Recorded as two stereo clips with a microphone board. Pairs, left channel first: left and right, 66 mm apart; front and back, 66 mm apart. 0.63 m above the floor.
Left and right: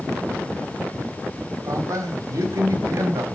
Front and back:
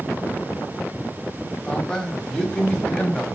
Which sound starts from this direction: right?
A man speaking, at 1.6 s.